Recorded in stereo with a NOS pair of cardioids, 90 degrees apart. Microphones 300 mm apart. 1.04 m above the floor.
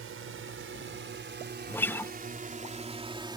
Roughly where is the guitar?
Ahead.